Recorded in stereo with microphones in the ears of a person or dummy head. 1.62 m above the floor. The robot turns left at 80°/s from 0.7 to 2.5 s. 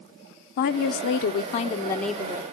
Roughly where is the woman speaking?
Behind left.